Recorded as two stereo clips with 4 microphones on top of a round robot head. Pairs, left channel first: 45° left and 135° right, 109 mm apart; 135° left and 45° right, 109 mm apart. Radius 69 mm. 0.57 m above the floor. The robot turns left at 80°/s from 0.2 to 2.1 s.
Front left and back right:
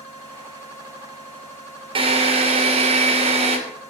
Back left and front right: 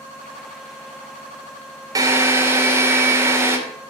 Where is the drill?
100° right, 2.5 m; by 3.6 s 115° right, 2.5 m.